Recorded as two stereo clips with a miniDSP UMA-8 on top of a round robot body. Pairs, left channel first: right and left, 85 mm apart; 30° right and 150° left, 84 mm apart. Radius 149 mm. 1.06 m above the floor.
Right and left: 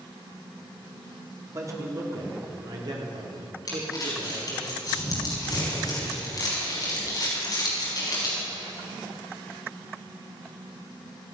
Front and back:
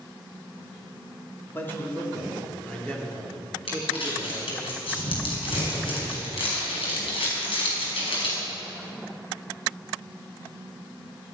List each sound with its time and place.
1.5 s a man speaking: 35° left, 2.5 m; by 4.7 s 60° left, 3.5 m
3.7 s crumpling: 45° right, 4.5 m